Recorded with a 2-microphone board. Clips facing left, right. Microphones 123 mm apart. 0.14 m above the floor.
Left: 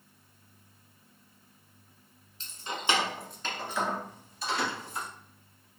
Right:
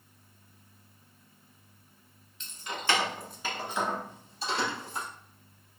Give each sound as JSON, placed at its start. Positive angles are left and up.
{"t": 2.4, "sound": "keys jangling", "side_deg": 40, "distance_m": 1.0}